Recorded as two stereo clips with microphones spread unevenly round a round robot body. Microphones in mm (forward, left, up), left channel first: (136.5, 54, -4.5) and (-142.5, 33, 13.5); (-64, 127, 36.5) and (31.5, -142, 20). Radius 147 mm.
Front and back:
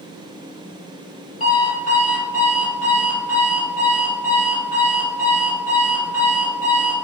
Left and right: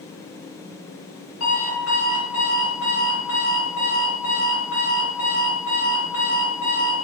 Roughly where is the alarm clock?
Left.